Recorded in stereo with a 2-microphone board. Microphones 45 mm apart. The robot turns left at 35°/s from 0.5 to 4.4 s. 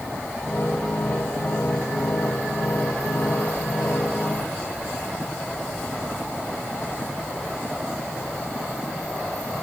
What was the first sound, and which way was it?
Only background noise.